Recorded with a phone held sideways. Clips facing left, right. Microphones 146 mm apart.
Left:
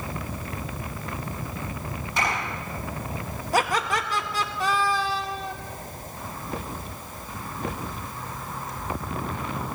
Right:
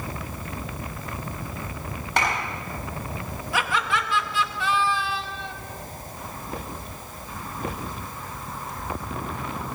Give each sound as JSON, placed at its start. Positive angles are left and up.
{"t": 2.2, "sound": "a clap", "side_deg": -75, "distance_m": 7.0}
{"t": 3.5, "sound": "laughter", "side_deg": 40, "distance_m": 1.1}